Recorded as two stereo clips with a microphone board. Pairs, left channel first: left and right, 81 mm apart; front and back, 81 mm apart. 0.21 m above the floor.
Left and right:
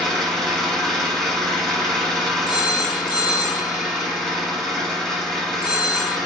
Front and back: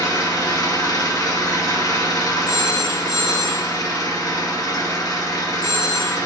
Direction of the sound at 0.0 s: 10° left.